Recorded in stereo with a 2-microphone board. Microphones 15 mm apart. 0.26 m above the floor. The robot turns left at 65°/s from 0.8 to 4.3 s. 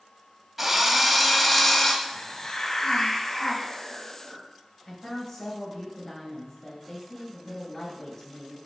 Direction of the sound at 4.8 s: 25° left (ahead or behind).